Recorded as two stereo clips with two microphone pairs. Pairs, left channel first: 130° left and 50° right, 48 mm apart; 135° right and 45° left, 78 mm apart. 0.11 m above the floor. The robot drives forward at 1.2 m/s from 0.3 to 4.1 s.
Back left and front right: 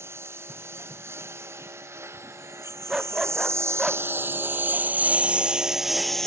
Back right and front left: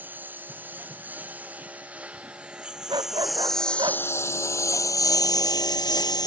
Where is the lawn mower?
25° right; by 6.3 s 150° right.